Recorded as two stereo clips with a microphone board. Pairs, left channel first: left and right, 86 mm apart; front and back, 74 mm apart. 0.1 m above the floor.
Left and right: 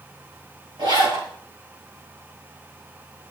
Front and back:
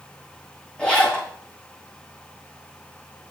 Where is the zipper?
80° right, 5.5 m.